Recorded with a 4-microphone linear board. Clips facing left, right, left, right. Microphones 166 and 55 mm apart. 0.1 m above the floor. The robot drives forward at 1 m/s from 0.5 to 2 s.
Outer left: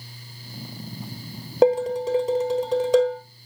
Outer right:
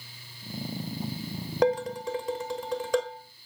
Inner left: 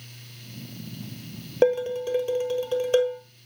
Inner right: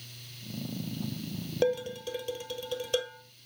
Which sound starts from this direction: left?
Dishes clattering, at 1.6 s.